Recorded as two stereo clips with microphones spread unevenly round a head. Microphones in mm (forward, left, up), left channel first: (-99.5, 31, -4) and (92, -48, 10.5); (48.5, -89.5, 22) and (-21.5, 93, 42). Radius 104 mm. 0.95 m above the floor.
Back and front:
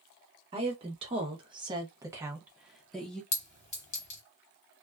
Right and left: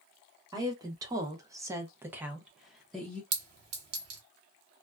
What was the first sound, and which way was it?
A woman speaking, 40° left.